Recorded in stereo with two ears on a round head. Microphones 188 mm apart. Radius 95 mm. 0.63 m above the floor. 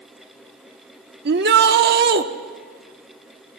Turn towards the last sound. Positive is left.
turn(degrees=-50)  # may be behind; listen again after turning